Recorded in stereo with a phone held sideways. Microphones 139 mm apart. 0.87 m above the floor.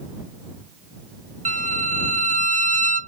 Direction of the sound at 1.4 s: 65° right (ahead or behind).